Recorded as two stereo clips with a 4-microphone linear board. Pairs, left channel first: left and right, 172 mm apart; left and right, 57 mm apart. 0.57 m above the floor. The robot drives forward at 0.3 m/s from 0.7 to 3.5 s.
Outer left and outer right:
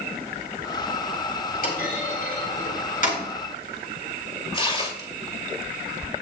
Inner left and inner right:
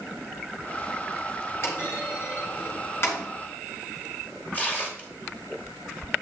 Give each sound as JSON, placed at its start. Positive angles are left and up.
{"t": 1.6, "sound": "a clunk", "side_deg": 55, "distance_m": 4.5}
{"t": 4.5, "sound": "tearing paper", "side_deg": 35, "distance_m": 3.0}